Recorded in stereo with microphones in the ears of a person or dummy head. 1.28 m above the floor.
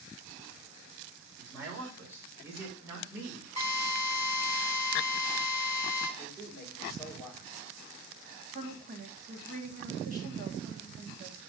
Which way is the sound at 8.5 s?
50° right (ahead or behind).